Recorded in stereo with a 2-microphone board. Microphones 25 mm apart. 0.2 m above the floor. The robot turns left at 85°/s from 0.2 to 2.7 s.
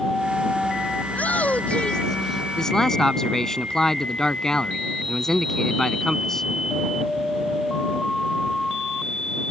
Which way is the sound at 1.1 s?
105° left.